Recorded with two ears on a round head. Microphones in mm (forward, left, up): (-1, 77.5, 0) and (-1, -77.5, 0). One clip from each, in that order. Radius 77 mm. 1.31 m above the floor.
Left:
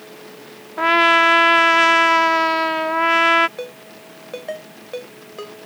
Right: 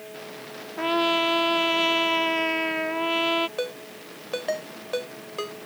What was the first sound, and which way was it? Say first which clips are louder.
A trumpet: left 10 dB; 40° left (ahead or behind).